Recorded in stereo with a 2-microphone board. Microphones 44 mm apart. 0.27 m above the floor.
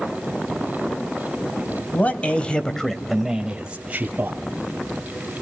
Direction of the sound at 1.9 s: 40° left (ahead or behind).